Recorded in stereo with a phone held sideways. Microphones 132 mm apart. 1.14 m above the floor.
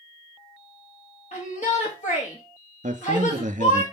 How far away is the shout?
About 2.5 m.